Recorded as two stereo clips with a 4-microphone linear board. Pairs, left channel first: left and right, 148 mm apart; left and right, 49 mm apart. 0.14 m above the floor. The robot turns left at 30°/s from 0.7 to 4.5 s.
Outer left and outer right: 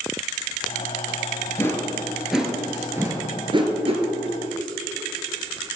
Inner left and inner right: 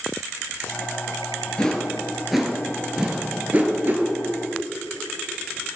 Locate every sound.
1.6 s a whoosh: 20° left (ahead or behind), 1.2 m; by 4.0 s 45° right (ahead or behind), 1.2 m